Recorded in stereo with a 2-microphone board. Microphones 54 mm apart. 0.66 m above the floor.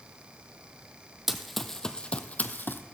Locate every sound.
1.3 s running footsteps: 5° right (ahead or behind), 1.0 m; by 2.8 s 45° left (ahead or behind), 1.1 m